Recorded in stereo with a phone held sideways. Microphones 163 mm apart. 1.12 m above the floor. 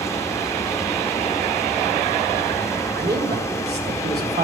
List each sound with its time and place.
0.0 s a fan: 20° left (ahead or behind), 1.1 m
3.0 s a man speaking: 85° right, 3 m